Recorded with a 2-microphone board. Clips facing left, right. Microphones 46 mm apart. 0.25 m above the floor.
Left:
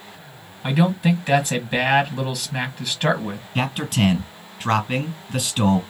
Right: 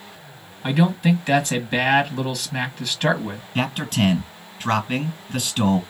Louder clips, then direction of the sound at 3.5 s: Even; centre (ahead or behind).